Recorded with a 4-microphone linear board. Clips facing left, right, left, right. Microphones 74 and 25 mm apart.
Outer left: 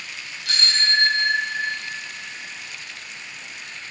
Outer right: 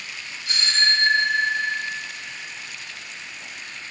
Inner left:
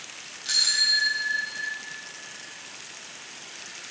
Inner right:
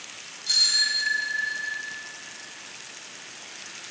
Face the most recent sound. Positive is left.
turn(degrees=85)